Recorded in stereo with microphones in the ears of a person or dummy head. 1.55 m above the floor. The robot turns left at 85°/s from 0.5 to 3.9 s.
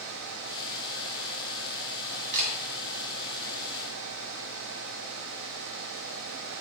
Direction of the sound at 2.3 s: 40° right (ahead or behind).